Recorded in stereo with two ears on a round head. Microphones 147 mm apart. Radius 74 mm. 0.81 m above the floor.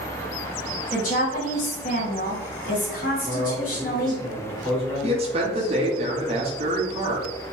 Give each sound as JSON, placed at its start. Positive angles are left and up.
{"t": 0.9, "sound": "a woman speaking", "side_deg": 50, "distance_m": 1.5}
{"t": 3.2, "sound": "a man speaking", "side_deg": -15, "distance_m": 1.4}
{"t": 5.0, "sound": "a man speaking", "side_deg": -35, "distance_m": 0.9}